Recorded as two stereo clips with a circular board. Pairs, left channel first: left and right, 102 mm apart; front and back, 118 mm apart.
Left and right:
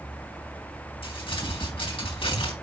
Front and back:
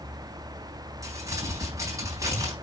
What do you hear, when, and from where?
1.0 s crumpling: 120° left, 4 m